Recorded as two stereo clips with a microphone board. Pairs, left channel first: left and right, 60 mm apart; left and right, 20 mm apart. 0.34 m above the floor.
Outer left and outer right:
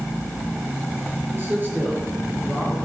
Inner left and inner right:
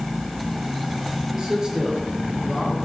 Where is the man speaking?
35° right (ahead or behind), 5.5 m; by 2.8 s 25° right (ahead or behind), 4 m.